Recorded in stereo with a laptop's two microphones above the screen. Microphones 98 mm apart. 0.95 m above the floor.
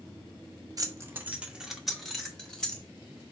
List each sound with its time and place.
0.8 s keys jangling: 40° right (ahead or behind), 0.6 m; by 2.8 s 10° left (ahead or behind), 1.8 m